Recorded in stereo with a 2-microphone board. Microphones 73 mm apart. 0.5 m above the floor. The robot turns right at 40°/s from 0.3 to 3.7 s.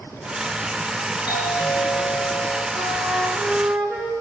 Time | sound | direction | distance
1.3 | a doorbell | 75° left | 9 m
2.8 | a flute | 140° left | 2.5 m